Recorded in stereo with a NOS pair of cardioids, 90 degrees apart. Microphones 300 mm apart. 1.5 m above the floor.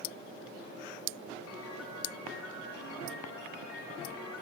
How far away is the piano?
About 4 m.